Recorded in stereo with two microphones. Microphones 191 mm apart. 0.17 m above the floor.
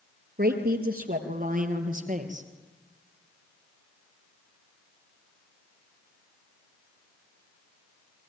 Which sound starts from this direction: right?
A woman speaking, at 0.4 s.